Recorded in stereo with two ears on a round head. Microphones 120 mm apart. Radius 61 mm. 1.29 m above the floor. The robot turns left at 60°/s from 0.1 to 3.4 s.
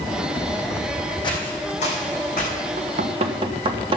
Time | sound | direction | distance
1.2 | footsteps | 40° left (ahead or behind) | 3 m
2.8 | knocking | 80° right | 1.2 m